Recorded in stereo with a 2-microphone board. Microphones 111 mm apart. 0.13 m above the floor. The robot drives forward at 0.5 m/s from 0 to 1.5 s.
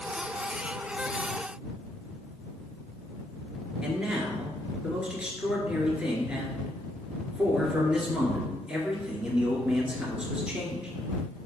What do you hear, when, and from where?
3.8 s a man speaking: 10° right (ahead or behind), 2 m